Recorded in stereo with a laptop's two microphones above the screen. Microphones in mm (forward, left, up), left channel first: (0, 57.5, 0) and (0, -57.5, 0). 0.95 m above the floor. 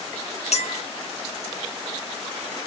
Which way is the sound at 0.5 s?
65° left (ahead or behind).